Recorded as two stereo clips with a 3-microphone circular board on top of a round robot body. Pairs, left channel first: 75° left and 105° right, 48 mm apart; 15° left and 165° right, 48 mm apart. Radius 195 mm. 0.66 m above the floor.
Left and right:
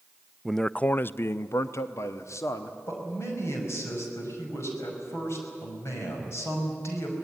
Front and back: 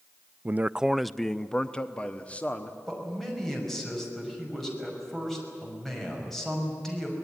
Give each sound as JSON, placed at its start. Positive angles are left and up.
{"t": 0.5, "sound": "a man speaking", "azimuth_deg": 170, "distance_m": 0.5}
{"t": 2.9, "sound": "a man speaking", "azimuth_deg": 100, "distance_m": 5.5}